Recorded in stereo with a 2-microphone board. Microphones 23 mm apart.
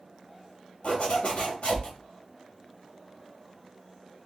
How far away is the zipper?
About 1.9 m.